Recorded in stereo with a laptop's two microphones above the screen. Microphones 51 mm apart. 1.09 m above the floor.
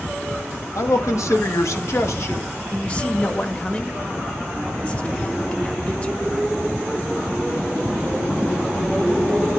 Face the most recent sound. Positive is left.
turn(degrees=25)  # may be behind; listen again after turning